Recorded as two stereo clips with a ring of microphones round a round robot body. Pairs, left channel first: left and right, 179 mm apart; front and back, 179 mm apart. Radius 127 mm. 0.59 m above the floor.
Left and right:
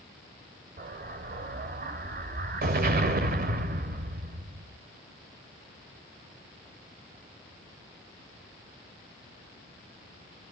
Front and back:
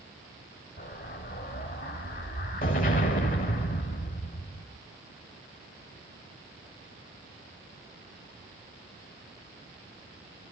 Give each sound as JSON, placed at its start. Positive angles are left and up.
{"t": 0.8, "sound": "an explosion", "azimuth_deg": -60, "distance_m": 2.0}